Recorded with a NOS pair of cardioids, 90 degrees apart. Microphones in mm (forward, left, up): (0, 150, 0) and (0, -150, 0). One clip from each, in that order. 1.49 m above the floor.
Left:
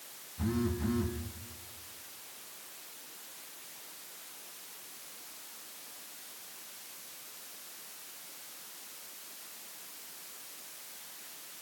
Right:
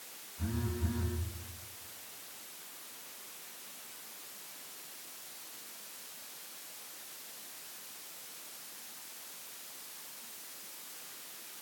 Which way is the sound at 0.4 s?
65° left.